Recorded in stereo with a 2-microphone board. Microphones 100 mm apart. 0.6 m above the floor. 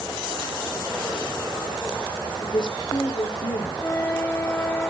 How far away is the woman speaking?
About 1.8 m.